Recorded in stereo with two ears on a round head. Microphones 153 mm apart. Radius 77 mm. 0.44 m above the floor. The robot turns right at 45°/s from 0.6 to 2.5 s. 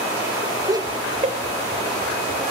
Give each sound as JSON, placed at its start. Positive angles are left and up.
{"t": 0.7, "sound": "laughter", "side_deg": -20, "distance_m": 1.6}